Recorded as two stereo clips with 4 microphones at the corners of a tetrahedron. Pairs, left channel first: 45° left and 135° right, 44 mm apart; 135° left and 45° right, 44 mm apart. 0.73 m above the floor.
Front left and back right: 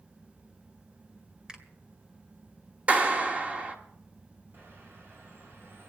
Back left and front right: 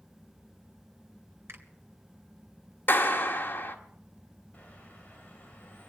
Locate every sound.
1.5 s a finger snap: 60° right, 2.0 m
2.9 s a clap: 170° left, 1.6 m
4.5 s a bird: 165° right, 3.5 m